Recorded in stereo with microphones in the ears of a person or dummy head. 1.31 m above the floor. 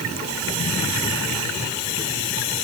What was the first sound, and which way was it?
Only background noise.